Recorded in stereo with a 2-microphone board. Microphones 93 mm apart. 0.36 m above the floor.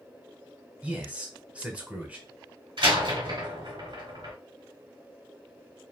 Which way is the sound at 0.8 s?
15° right (ahead or behind).